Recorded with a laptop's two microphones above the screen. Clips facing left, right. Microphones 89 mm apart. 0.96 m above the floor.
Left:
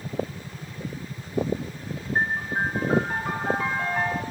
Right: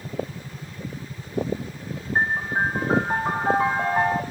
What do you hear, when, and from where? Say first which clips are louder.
2.1 s a piano: right 3 dB; 30° right (ahead or behind), 1.0 m